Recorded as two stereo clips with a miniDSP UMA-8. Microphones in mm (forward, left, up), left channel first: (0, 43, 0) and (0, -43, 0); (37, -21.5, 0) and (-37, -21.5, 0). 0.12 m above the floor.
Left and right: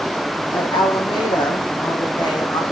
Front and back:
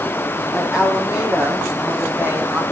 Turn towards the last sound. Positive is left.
turn(degrees=120)